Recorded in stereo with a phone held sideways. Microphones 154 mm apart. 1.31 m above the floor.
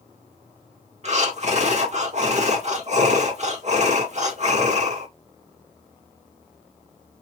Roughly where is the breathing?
Right.